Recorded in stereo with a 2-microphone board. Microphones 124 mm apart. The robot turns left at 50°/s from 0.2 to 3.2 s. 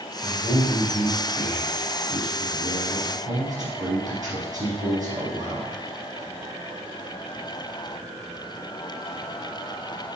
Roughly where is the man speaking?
Ahead.